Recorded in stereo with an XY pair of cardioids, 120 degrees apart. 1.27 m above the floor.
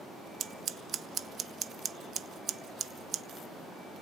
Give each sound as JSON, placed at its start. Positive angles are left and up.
{"t": 0.4, "sound": "scissors", "azimuth_deg": -50, "distance_m": 1.1}